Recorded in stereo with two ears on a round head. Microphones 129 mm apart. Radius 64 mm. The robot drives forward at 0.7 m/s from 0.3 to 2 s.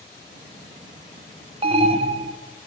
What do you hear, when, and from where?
1.6 s an alarm: 40° right (ahead or behind), 0.6 m; by 2.4 s 45° right (ahead or behind), 0.5 m